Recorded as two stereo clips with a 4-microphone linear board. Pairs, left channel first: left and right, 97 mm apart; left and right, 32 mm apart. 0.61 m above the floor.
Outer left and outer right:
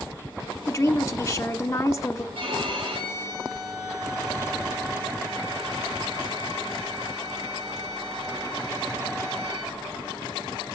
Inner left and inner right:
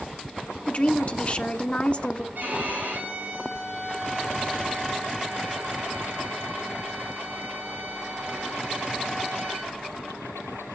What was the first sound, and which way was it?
A woman speaking, 30° left (ahead or behind).